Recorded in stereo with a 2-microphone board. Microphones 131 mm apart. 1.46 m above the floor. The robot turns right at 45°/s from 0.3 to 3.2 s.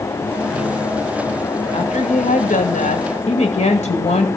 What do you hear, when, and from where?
1.7 s a woman speaking: 55° left, 2.5 m; by 4.3 s 120° left, 2.5 m